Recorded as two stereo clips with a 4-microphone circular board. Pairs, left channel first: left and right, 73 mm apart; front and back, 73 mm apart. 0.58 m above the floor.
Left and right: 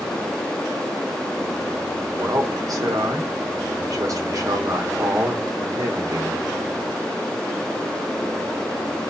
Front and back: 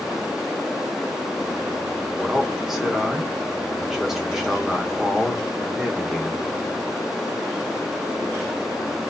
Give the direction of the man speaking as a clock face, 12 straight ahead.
3 o'clock.